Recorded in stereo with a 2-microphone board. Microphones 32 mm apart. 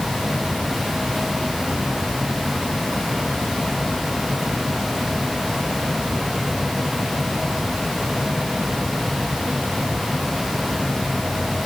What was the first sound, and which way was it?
Only background noise.